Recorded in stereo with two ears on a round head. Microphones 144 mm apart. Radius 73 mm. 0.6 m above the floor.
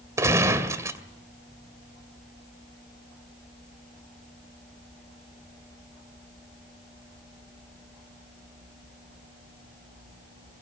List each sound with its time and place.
0.2 s a gunshot: 20° right (ahead or behind), 2 m